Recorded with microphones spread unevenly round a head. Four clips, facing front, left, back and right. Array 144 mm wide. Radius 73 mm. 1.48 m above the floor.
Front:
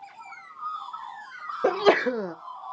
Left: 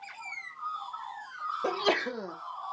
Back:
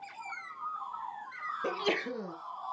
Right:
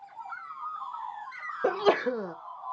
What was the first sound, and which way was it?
A sneeze, 20° right.